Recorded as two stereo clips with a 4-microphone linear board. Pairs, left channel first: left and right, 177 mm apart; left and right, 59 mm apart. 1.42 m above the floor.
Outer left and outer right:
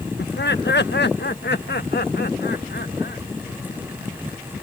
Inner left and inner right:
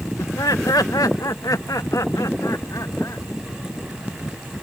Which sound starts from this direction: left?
Laughter, at 0.2 s.